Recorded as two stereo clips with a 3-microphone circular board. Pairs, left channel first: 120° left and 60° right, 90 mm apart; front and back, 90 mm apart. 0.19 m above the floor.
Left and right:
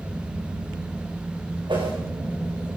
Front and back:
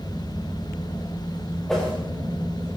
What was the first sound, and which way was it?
A whoosh, 85° right.